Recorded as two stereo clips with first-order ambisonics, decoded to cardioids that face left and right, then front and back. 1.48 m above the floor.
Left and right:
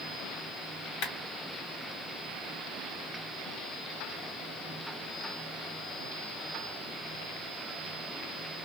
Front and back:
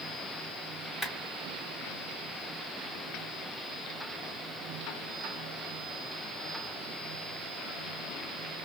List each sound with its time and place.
1.0 s a clap: 90° left, 2 m